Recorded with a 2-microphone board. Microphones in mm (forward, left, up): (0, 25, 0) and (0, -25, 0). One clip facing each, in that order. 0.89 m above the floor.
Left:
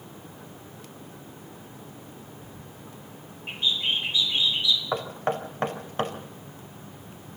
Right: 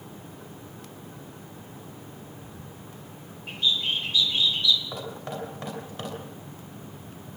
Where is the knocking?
45° left (ahead or behind), 3 m.